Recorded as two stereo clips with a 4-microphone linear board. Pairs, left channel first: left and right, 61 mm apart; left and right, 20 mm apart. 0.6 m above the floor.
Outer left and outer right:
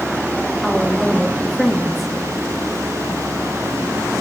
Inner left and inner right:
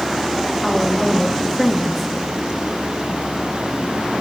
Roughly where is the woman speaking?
Centre.